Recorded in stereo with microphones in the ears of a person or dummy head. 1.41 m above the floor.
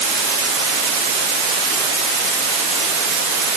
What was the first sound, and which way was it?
Only background noise.